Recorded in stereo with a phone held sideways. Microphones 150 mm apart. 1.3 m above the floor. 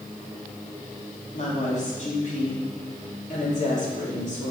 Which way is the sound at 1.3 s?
55° left (ahead or behind).